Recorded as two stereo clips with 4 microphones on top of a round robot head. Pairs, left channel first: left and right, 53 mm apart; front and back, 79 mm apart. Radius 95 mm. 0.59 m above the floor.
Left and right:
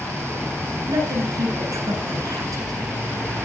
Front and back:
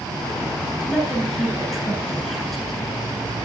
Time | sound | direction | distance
0.9 | a woman speaking | 90° right | 10 m